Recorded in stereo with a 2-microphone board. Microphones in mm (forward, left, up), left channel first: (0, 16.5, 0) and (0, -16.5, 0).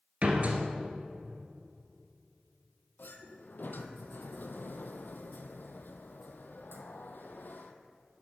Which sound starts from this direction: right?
A door slam, at 0.2 s.